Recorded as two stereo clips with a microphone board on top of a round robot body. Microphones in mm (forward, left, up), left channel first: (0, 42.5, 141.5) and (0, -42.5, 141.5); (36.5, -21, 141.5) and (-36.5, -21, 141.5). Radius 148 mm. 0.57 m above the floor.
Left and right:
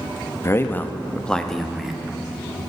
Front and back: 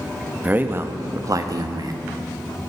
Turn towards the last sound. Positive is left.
turn(degrees=-175)